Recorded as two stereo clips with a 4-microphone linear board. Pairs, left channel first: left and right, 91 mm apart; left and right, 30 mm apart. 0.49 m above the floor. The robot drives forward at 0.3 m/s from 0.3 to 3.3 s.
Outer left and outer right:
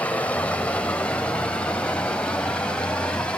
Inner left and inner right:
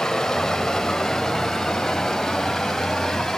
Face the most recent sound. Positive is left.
turn(degrees=10)  # may be behind; listen again after turning